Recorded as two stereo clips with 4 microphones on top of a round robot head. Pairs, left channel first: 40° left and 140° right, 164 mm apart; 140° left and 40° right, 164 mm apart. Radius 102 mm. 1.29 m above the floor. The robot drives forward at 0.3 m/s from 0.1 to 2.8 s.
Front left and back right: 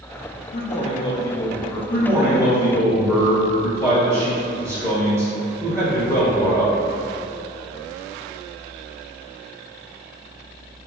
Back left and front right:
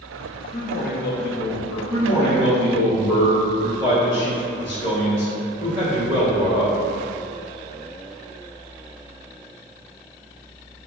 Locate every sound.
0.5 s a man speaking: 90° left, 0.5 m; by 1.8 s 125° left, 0.6 m
1.9 s a man speaking: 145° left, 1.3 m; by 6.7 s 150° left, 1.5 m